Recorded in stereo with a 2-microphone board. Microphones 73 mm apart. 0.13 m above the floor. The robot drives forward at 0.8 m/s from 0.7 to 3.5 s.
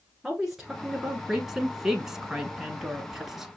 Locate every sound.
0.2 s a woman speaking: 5° right (ahead or behind), 1.5 m